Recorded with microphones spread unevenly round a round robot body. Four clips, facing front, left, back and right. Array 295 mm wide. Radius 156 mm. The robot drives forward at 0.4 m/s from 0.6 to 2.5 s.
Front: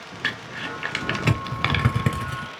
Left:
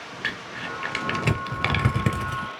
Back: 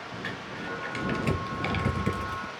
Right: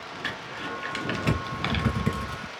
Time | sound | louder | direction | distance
0.2 | crumpling | left 2 dB, front 7 dB | 30° left | 1.7 m